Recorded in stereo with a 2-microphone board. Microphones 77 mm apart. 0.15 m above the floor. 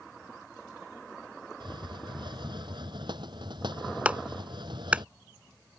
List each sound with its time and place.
1.6 s a hiss: 75° right (ahead or behind)
4.0 s a clap: 15° right (ahead or behind)